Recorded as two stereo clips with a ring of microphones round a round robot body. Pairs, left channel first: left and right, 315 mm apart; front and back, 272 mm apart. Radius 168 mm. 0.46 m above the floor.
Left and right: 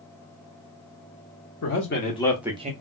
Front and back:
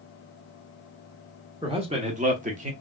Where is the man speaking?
115° left, 1.0 m; by 2.7 s 140° right, 0.8 m.